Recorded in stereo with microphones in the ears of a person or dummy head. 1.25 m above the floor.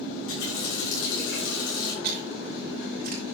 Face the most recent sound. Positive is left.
turn(degrees=-45)  # may be behind; listen again after turning